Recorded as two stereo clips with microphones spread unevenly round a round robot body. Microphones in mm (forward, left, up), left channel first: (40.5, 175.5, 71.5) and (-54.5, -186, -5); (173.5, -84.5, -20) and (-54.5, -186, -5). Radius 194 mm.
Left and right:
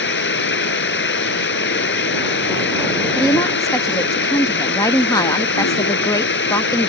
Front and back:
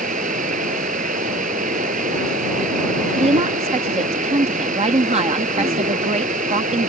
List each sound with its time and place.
0.0 s running water: 135° left
3.2 s a woman speaking: 170° left